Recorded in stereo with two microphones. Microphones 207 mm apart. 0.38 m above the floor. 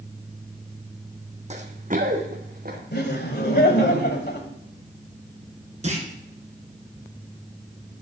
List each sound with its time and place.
1.5 s running footsteps: 35° right (ahead or behind), 1.3 m; by 2.8 s 45° right (ahead or behind), 3 m
2.9 s laughter: 55° left (ahead or behind), 1.7 m
5.8 s a clunk: 35° right (ahead or behind), 2 m